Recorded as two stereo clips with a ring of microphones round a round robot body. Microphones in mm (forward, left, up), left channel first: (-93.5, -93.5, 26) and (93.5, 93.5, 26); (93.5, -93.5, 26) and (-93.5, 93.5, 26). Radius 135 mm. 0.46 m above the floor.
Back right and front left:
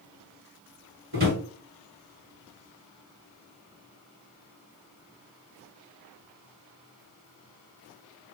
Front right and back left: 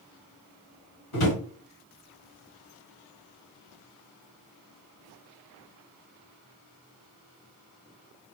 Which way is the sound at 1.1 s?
15° right.